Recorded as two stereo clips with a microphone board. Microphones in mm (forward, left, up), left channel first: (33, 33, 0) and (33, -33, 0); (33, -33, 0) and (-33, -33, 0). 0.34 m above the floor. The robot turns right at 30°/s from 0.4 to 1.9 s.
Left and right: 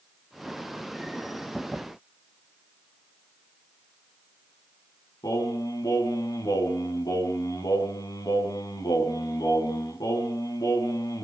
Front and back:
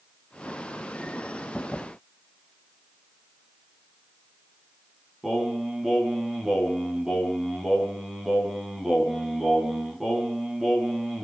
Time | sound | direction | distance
5.2 | singing | 95° left | 2.5 m